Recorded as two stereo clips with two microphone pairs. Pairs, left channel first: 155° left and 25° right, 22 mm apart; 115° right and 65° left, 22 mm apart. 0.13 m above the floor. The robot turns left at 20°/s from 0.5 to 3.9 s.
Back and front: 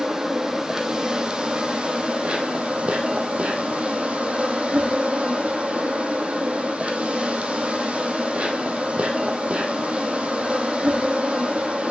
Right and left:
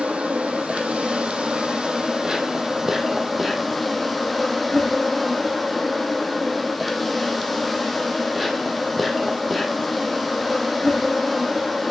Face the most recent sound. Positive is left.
turn(degrees=-30)